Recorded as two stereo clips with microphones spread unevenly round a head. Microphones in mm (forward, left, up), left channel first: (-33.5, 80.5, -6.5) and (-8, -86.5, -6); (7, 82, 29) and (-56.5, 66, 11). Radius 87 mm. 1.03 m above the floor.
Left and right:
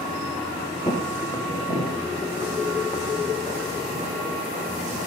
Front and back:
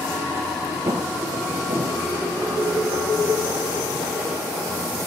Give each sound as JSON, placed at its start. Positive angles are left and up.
{"t": 0.9, "sound": "footsteps", "azimuth_deg": 155, "distance_m": 1.3}